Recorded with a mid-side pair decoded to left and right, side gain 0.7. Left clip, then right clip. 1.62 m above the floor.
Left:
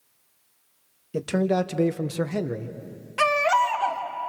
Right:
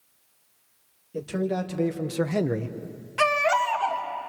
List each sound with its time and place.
1.1 s a man speaking: 50° left, 2.5 m; by 2.8 s 35° right, 1.5 m
3.2 s a baby crying: 10° left, 3 m